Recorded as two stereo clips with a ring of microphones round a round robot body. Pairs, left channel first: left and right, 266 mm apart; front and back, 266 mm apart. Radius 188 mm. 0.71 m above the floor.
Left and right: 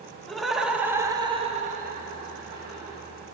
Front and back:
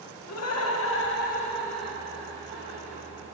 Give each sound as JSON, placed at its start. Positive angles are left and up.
{"t": 0.3, "sound": "laughter", "azimuth_deg": 0, "distance_m": 1.4}